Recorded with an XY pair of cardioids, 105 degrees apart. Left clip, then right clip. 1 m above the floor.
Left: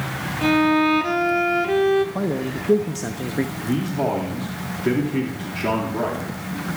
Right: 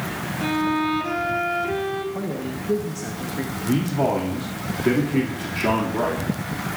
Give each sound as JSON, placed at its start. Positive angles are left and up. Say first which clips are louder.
{"t": 0.4, "sound": "a violin", "louder": "left 5 dB", "azimuth_deg": 40, "distance_m": 1.3}
{"t": 2.1, "sound": "a man speaking", "louder": "left 4 dB", "azimuth_deg": 45, "distance_m": 0.8}
{"t": 3.6, "sound": "a man speaking", "louder": "right 4 dB", "azimuth_deg": -5, "distance_m": 2.0}